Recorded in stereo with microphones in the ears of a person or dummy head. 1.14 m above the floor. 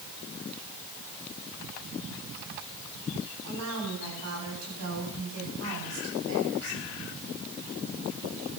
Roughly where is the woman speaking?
Right.